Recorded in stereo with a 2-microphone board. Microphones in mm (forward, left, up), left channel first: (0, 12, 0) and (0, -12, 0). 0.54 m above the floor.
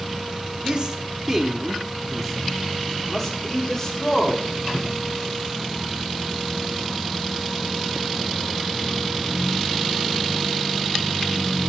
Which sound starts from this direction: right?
A man speaking, at 0.6 s.